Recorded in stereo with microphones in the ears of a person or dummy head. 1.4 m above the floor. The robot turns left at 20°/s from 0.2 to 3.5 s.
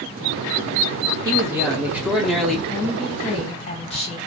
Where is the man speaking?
20° right (ahead or behind), 0.9 m; by 2.6 s 5° left (ahead or behind), 0.9 m.